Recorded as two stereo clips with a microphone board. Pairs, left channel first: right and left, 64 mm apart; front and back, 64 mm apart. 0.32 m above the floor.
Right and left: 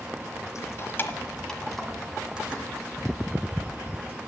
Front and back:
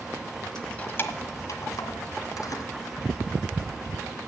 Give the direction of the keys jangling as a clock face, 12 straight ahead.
3 o'clock.